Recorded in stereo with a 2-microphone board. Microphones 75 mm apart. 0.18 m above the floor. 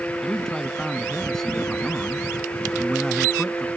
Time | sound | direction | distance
0.2 | a man speaking | 5° left (ahead or behind) | ?